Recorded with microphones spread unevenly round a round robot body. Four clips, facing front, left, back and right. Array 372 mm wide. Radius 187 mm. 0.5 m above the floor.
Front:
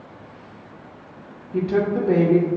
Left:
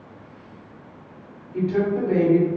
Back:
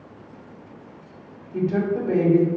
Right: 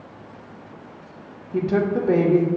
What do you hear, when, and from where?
1.5 s a woman speaking: 65° right, 1.4 m